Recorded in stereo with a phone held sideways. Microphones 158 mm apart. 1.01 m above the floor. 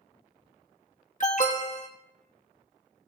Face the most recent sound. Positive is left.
turn(degrees=50)  # may be behind; listen again after turning